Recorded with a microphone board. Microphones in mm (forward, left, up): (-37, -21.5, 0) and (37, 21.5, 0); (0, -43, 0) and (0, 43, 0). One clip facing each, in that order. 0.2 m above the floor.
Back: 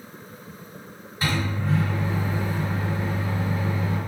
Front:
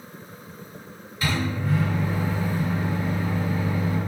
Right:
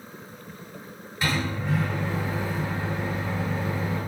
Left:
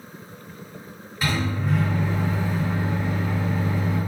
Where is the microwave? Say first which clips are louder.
Even, left 2 dB; 175° left, 1.7 m.